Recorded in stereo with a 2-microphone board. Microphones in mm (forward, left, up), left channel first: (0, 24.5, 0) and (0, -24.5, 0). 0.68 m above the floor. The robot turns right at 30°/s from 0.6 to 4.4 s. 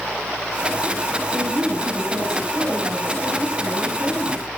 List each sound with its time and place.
1.3 s a woman speaking: 90° right, 5 m; by 4.5 s 5° left, 5 m